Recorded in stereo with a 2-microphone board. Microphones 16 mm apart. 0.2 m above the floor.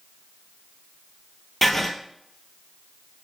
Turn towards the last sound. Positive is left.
turn(degrees=5)  # may be behind; listen again after turning